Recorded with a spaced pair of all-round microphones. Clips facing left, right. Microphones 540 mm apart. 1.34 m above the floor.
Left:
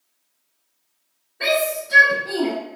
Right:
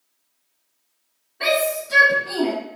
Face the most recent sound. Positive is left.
turn(degrees=-40)  # may be behind; listen again after turning